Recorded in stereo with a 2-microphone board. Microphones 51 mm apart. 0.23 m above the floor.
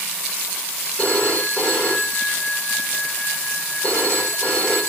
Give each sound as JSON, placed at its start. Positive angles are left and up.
{"t": 1.0, "sound": "a phone ringing", "side_deg": 20, "distance_m": 6.5}